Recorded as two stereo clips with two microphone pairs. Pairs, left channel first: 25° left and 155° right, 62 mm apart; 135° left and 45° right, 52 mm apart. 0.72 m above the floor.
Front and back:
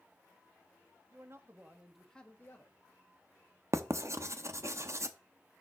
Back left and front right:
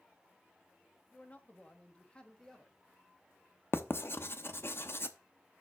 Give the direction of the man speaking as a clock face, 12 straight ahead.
6 o'clock.